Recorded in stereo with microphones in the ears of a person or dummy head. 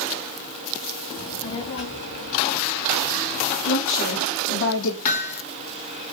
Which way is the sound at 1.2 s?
20° left (ahead or behind).